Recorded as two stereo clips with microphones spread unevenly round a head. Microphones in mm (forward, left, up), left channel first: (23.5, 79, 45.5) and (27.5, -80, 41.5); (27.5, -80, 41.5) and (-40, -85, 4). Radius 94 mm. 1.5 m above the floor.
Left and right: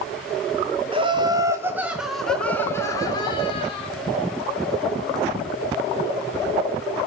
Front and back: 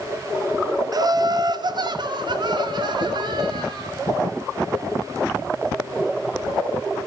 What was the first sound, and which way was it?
Laughter, 150° right.